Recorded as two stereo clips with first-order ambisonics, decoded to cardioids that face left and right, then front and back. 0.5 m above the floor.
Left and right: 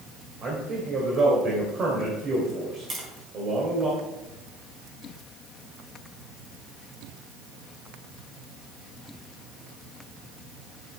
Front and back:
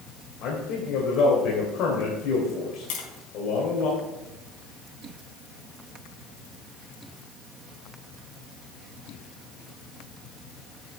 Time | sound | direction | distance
0.4 | a man speaking | 35° right | 2.5 m
2.9 | tapping | 25° right | 3 m